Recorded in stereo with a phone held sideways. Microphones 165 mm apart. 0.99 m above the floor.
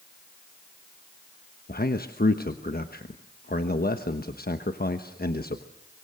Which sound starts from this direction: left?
A man speaking, at 1.7 s.